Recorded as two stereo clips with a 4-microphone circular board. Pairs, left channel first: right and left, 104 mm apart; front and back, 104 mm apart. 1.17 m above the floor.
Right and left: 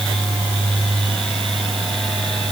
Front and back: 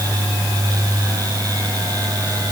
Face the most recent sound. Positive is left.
No sound to turn to.